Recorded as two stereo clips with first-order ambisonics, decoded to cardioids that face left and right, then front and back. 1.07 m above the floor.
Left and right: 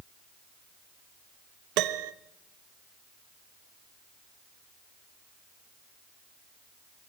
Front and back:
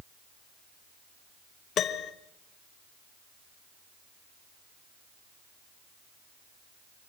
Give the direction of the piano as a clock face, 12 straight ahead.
2 o'clock.